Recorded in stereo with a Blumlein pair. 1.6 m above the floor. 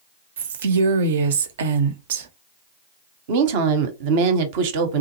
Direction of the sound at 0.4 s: 60° right.